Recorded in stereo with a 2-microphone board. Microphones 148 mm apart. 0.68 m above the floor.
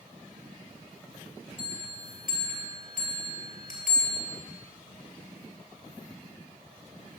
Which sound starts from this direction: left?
A bell, at 1.6 s.